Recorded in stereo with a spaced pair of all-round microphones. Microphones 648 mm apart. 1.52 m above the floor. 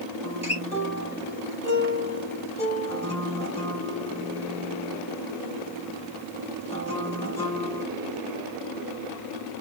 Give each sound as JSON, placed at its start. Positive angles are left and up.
{"t": 0.2, "sound": "a guitar", "side_deg": 10, "distance_m": 2.5}